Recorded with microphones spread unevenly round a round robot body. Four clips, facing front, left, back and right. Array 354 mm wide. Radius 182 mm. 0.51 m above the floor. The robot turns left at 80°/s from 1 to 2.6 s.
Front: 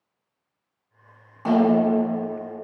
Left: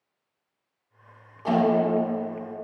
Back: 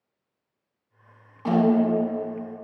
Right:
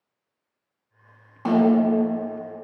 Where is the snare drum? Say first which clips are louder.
Right 3 dB, front 2 dB; 90° right, 1.7 m; by 2.2 s 150° right, 1.7 m.